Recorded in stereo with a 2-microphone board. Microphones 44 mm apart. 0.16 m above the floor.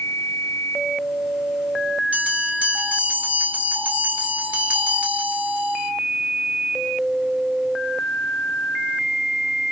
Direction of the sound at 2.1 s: 40° right (ahead or behind).